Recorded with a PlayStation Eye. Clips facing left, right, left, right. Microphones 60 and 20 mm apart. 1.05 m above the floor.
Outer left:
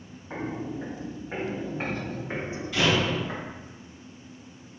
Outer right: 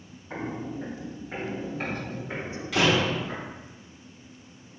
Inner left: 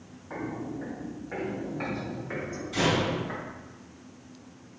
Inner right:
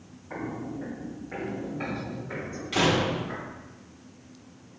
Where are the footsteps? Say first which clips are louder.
Outer left 1 dB, even; 10° left (ahead or behind), 1.7 m; by 3.5 s 30° left (ahead or behind), 3 m.